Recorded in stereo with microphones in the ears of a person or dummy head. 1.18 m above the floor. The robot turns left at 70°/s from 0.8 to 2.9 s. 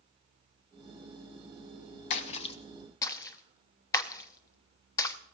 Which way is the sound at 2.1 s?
50° left (ahead or behind).